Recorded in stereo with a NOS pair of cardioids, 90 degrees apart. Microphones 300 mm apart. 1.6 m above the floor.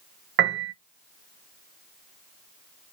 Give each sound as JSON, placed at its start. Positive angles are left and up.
{"t": 0.4, "sound": "a piano", "azimuth_deg": -40, "distance_m": 0.6}